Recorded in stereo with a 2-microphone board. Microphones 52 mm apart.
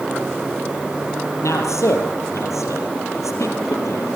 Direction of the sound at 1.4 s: 75° left (ahead or behind).